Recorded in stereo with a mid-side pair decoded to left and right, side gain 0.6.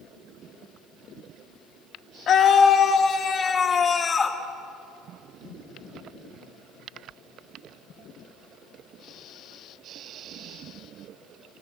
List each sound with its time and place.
2.3 s a scream: 45° left, 1.9 m; by 4.4 s 25° left, 3 m